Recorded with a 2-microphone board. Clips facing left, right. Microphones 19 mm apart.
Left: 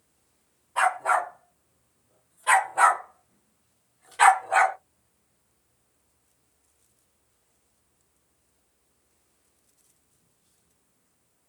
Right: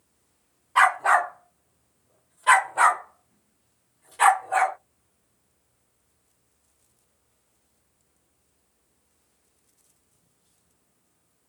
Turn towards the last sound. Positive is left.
turn(degrees=35)  # may be behind; listen again after turning